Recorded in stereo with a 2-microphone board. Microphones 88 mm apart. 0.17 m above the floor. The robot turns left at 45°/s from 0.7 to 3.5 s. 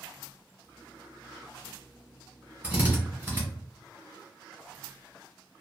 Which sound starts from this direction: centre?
A drill, at 2.6 s.